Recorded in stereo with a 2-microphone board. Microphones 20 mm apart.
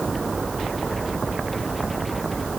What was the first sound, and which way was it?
Only background noise.